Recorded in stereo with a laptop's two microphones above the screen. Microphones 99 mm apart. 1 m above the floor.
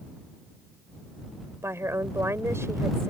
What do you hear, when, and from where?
1.6 s a woman speaking: 30° right (ahead or behind)